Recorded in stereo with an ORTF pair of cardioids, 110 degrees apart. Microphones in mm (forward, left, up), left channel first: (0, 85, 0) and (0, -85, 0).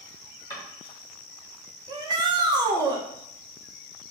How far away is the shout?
About 0.9 m.